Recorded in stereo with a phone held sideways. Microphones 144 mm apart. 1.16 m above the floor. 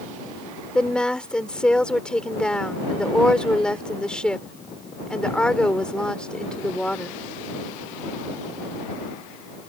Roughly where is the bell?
I don't hear a bell.